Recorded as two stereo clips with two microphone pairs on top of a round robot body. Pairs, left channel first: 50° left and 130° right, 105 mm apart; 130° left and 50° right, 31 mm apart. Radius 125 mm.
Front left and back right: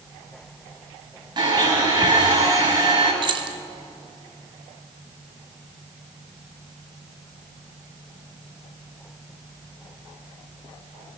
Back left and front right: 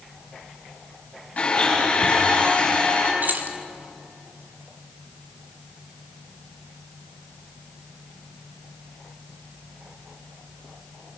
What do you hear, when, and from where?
1.4 s a blender: straight behind, 6 m
3.2 s keys jangling: 85° right, 1.0 m